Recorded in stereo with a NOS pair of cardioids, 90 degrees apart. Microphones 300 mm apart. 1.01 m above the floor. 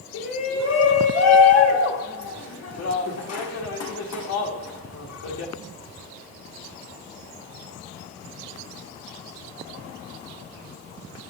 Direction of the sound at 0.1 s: 55° left.